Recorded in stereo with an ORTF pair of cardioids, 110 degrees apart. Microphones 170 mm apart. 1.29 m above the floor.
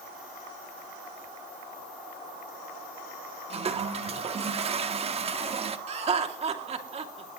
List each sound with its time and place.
3.5 s a toilet flushing: 40° right, 1.6 m
5.9 s laughter: 40° right, 3 m